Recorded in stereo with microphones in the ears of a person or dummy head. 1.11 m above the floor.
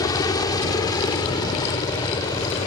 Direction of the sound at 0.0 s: 25° left (ahead or behind).